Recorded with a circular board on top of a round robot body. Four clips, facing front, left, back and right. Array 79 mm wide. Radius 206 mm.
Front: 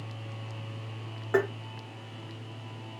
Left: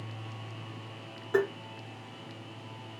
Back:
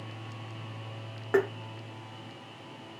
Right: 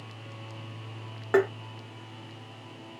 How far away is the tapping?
About 1.7 m.